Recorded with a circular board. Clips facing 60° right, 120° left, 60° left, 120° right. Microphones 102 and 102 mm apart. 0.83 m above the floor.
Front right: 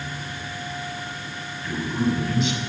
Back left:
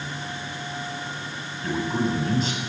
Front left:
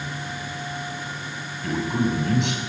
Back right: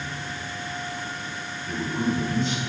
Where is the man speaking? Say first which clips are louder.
Even, front left 3 dB; 70° left, 7 m.